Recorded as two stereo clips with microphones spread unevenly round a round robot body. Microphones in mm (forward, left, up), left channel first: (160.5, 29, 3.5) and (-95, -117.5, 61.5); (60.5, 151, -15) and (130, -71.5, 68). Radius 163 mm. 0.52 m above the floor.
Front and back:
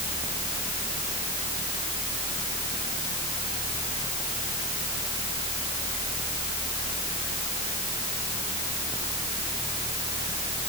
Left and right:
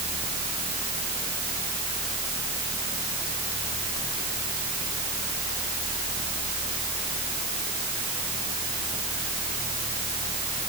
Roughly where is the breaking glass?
I don't hear breaking glass.